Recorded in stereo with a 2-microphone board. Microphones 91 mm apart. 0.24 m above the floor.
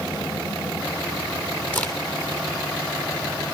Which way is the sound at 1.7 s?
20° left (ahead or behind).